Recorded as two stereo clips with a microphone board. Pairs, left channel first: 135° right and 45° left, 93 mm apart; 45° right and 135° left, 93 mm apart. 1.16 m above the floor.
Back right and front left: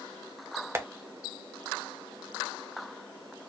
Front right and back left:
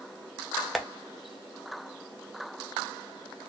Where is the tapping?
45° left, 0.5 m.